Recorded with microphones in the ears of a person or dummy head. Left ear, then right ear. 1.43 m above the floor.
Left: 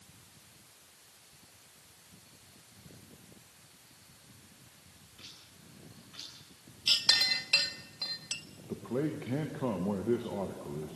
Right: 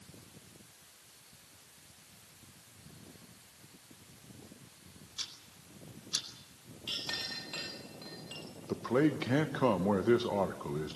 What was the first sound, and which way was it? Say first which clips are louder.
Ticking: right 9 dB; 85° right.